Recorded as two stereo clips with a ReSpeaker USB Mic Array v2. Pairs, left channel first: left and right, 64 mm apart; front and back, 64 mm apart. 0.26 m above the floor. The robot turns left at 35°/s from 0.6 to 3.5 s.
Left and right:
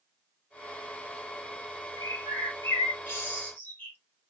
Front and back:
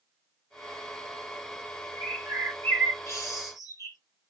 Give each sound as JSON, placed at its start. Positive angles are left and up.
{"t": 2.0, "sound": "a bird", "azimuth_deg": 75, "distance_m": 1.9}